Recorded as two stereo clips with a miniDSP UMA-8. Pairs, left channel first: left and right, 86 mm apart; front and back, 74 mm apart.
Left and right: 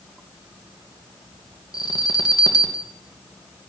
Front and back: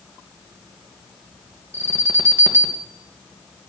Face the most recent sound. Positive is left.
turn(degrees=125)